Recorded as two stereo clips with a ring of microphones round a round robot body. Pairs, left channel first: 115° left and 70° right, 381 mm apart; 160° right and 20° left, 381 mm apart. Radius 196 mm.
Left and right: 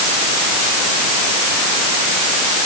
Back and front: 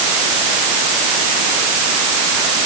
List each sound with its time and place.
Only background noise.